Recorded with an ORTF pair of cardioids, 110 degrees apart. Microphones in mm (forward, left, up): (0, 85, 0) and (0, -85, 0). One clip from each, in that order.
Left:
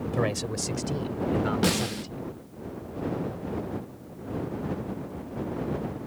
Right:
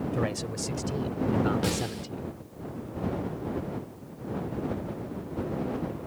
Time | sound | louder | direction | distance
0.1 | a man speaking | left 5 dB | 25° left | ?
1.6 | a snare drum | left 4 dB | 30° left | ?